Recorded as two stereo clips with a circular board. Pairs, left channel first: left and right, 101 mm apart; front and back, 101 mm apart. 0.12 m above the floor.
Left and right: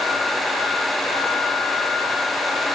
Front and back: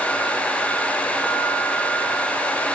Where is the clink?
No clink in this recording.